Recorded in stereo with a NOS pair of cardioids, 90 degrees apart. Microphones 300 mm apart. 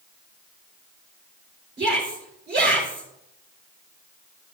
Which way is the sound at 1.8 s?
35° right.